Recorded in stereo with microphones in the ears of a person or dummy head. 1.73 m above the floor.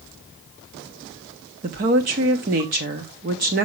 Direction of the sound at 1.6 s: 30° right (ahead or behind).